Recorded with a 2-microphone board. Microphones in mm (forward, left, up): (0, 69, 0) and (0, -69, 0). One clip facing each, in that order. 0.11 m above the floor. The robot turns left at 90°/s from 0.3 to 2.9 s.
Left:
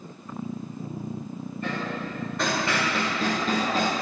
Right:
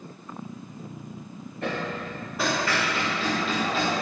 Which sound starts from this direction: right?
Hammering, at 1.6 s.